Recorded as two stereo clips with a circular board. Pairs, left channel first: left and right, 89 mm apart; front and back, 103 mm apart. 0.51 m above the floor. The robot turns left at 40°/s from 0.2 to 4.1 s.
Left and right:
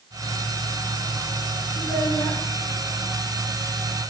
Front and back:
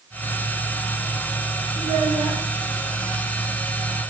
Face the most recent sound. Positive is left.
turn(degrees=60)